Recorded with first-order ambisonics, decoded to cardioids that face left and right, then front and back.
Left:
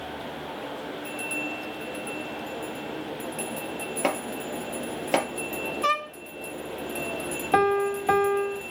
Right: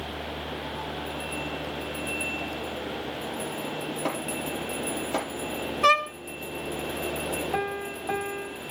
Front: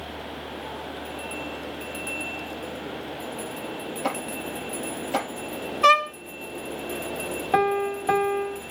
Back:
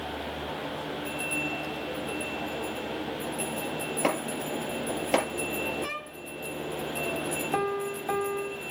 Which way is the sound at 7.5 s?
50° left.